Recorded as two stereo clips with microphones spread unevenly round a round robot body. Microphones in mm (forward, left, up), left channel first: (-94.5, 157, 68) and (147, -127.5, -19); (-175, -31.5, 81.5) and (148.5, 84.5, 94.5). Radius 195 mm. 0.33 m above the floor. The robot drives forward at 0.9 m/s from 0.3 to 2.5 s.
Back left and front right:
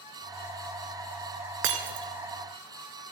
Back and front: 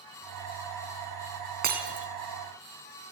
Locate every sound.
1.6 s breaking glass: 45° right, 3 m; by 2.1 s 50° right, 3 m